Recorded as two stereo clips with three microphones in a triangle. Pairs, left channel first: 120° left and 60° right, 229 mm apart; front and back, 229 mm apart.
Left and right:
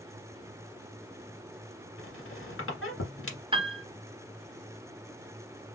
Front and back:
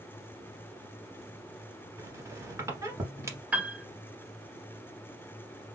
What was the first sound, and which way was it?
A squeak, 100° left.